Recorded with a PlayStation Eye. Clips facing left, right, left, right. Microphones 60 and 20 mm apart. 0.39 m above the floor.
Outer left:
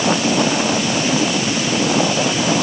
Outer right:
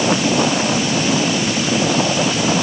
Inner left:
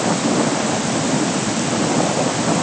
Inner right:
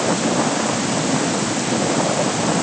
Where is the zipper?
No zipper in this recording.